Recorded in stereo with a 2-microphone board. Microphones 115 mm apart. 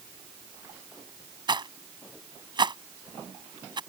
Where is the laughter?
I don't hear laughter.